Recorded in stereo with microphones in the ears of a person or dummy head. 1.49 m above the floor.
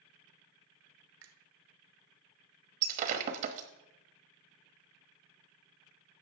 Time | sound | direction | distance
1.2 | a finger snap | 85° right | 1.1 m
2.8 | breaking glass | 45° right (ahead or behind) | 1.2 m